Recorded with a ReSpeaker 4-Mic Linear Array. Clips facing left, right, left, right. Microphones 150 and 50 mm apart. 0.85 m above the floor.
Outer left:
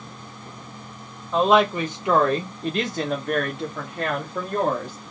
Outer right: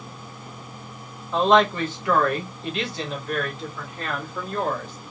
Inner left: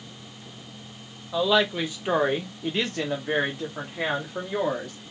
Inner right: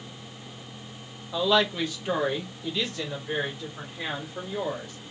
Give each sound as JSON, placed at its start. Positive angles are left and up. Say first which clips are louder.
{"t": 1.3, "sound": "a woman speaking", "louder": "even, inner left 1 dB", "side_deg": 0, "distance_m": 1.1}